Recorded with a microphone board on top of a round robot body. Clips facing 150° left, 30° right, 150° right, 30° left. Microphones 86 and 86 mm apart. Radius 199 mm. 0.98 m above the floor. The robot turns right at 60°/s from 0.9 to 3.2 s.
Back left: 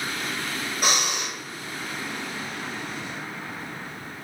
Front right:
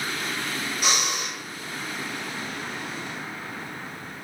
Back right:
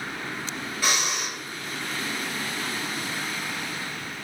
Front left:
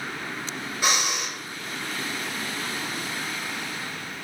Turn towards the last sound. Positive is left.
turn(degrees=-120)